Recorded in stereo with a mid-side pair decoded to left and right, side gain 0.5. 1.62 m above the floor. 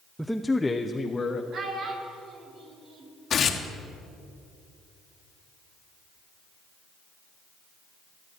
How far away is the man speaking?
About 0.5 m.